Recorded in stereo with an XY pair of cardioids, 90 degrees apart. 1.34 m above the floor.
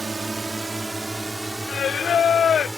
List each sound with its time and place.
0.0 s a drone: 40° right; by 2.8 s 15° right
1.7 s singing: 50° left